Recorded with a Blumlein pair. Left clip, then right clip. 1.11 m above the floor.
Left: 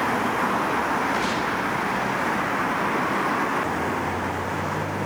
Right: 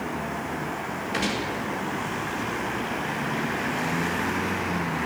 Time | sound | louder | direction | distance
1.1 | a gunshot | left 3 dB | 20° right | 5 m